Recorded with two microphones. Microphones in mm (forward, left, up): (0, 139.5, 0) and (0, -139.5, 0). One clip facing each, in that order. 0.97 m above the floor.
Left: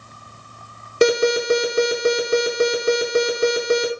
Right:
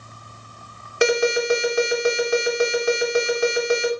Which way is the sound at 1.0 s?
45° left (ahead or behind).